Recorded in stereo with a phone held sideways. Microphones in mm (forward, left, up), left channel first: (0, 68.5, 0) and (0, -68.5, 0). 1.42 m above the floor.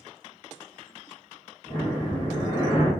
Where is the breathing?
30° left (ahead or behind), 1.5 m.